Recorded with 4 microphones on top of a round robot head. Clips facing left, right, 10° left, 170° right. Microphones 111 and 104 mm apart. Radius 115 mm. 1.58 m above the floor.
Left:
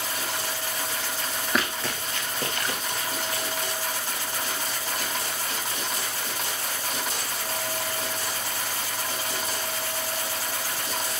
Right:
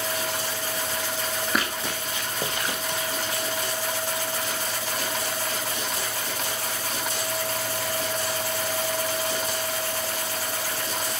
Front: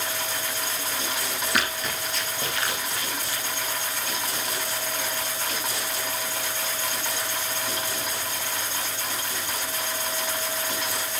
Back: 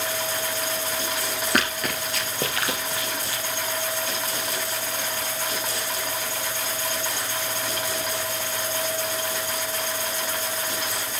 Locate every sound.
1.5 s running footsteps: straight behind, 1.7 m; by 3.4 s 165° right, 3.5 m